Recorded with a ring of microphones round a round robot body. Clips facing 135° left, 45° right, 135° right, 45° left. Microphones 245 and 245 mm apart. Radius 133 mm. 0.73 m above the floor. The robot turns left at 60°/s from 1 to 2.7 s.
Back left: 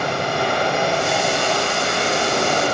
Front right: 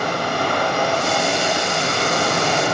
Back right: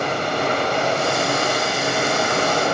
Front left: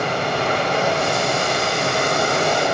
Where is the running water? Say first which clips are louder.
Even, even; 70° left, 3.5 m; by 2.7 s 35° right, 3.5 m.